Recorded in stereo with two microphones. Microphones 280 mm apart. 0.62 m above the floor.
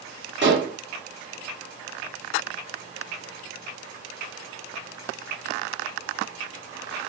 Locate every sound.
0.4 s dishes clattering: 40° right (ahead or behind), 0.7 m